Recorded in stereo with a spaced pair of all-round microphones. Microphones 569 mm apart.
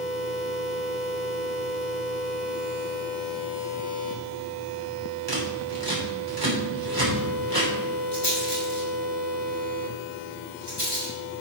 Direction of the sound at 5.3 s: 40° right (ahead or behind).